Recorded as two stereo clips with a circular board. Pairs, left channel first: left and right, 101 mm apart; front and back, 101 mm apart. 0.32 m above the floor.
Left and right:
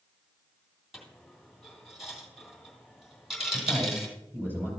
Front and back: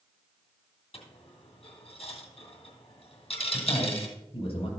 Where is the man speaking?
15° right, 6.5 m.